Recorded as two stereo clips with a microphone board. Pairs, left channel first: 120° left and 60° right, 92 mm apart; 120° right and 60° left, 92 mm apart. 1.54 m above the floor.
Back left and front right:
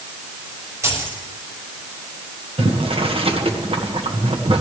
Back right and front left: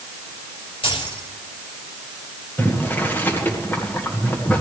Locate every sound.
0.8 s keys jangling: 120° right, 6 m
2.6 s boiling: 50° right, 1.7 m